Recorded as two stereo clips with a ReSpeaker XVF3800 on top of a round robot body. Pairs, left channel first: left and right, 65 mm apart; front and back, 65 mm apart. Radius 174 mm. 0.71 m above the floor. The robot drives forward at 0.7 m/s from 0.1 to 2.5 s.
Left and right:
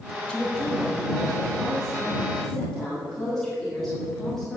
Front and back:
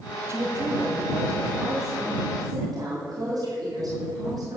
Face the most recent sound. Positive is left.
turn(degrees=175)